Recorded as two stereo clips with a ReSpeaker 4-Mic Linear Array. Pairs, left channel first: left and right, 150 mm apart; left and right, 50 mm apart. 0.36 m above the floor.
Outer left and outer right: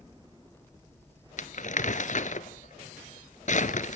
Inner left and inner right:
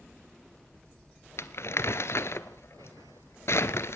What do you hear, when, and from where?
1.4 s crumpling: 55° left (ahead or behind), 1.1 m